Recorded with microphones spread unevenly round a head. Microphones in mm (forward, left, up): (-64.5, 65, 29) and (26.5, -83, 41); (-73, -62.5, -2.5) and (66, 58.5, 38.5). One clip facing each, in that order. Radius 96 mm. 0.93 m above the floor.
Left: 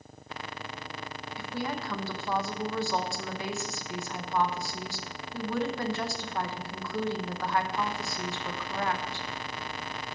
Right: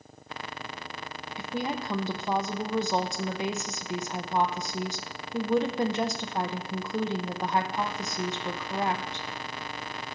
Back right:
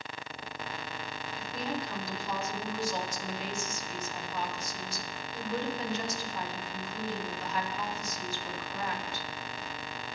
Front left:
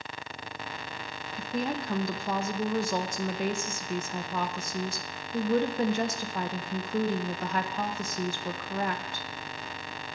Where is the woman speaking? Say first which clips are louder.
Right 3 dB, front left 5 dB; 10° left, 0.8 m.